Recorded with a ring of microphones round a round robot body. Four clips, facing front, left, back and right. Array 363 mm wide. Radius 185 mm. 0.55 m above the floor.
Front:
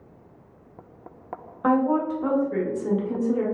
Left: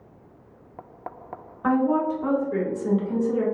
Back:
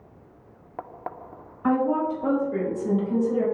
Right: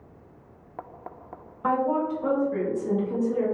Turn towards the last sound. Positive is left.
turn(degrees=70)